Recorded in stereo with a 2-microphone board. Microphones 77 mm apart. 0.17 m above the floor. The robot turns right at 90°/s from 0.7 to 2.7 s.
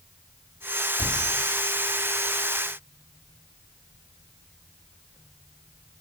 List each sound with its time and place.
1.0 s a cupboard door: 55° left (ahead or behind), 1.8 m; by 1.2 s 70° left (ahead or behind), 1.8 m